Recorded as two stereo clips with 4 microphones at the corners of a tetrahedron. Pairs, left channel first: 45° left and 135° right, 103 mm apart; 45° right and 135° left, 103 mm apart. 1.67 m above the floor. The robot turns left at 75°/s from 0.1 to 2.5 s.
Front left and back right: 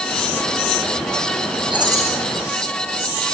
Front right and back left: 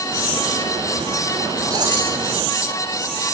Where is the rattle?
170° right, 5 m; by 2.1 s 160° left, 5 m.